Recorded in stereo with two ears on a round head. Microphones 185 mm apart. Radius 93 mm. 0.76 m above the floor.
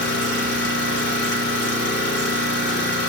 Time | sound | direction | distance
0.0 | an engine running | 60° left (ahead or behind) | 2.5 m